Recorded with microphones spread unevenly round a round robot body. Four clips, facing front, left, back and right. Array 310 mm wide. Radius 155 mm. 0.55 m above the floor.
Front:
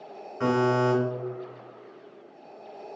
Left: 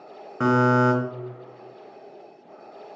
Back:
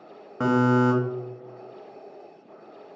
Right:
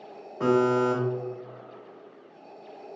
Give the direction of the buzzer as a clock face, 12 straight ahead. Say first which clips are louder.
Left 3 dB, back 3 dB; 8 o'clock.